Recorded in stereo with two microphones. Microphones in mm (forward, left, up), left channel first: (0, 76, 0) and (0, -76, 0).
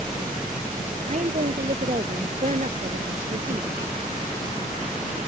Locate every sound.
1.1 s a woman speaking: 50° right (ahead or behind); by 3.8 s 55° right (ahead or behind)